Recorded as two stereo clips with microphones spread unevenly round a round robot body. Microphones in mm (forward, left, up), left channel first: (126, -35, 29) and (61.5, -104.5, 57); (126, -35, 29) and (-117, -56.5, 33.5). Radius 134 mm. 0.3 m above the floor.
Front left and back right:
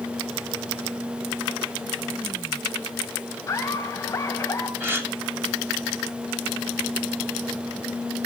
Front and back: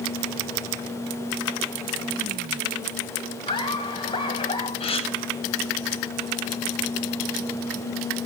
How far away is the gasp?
About 2.5 m.